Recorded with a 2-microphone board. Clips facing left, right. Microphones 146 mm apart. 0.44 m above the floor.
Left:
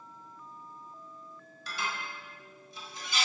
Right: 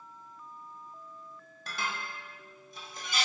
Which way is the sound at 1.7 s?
55° right (ahead or behind).